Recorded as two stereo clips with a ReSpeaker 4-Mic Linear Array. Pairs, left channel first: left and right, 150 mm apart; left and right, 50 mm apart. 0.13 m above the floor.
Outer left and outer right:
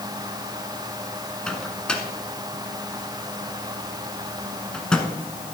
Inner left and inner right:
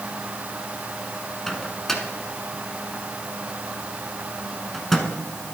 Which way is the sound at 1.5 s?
5° left (ahead or behind).